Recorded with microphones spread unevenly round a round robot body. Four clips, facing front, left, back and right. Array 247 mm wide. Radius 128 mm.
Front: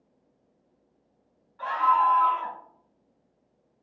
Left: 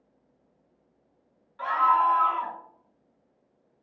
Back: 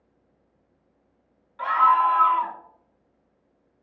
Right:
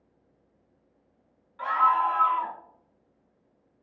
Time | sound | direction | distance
1.6 | a scream | 175° left | 4 m